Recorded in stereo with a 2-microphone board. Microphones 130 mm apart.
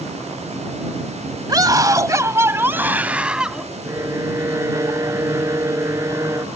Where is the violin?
25° right (ahead or behind).